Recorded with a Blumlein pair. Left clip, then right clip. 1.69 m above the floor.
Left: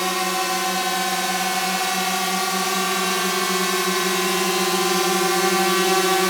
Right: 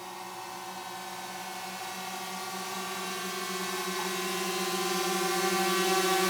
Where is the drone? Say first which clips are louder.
Left 18 dB; 50° left; by 6.3 s 70° left.